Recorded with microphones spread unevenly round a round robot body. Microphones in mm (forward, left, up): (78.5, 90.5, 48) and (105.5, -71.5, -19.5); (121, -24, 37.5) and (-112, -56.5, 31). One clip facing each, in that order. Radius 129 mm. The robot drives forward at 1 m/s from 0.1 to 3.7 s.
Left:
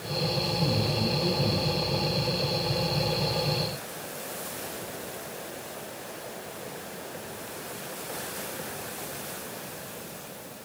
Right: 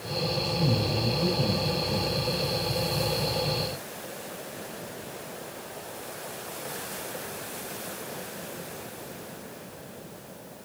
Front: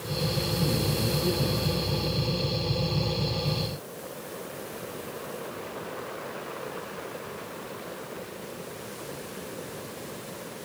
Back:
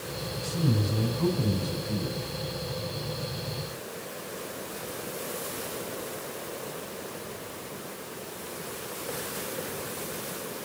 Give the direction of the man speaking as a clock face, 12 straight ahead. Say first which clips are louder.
Right 1 dB, back 3 dB; 6 o'clock.